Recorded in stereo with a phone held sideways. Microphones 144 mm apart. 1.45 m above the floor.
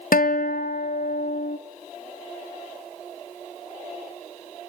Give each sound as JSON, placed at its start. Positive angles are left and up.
{"t": 0.1, "sound": "a guitar", "side_deg": 75, "distance_m": 0.7}